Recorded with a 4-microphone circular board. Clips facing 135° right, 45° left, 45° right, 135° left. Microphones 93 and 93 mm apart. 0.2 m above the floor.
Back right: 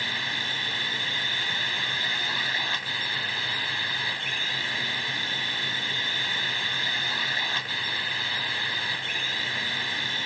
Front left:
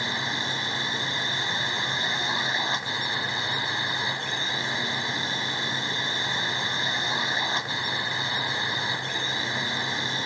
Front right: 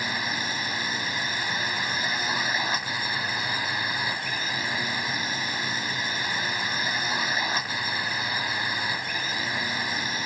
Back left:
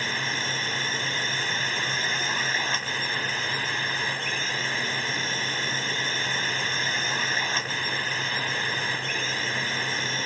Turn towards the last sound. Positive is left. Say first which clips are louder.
# front left 3 dB, even
turn(degrees=20)